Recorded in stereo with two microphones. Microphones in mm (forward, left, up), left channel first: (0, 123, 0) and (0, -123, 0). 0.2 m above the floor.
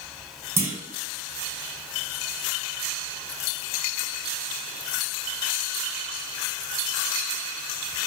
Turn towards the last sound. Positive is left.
turn(degrees=-10)  # may be behind; listen again after turning